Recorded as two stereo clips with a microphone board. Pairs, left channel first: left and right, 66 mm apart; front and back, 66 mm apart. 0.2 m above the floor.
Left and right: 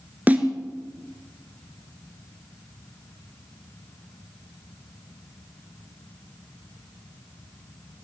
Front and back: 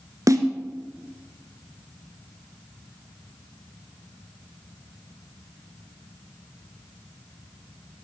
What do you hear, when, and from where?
0.3 s a snare drum: 155° right, 1.6 m